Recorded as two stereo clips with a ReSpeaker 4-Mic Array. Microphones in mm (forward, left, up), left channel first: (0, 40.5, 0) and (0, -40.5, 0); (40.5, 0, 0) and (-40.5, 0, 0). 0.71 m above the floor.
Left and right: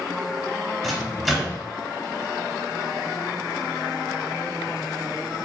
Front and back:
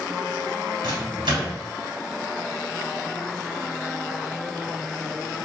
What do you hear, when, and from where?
0.8 s a microwave: 175° right, 1.8 m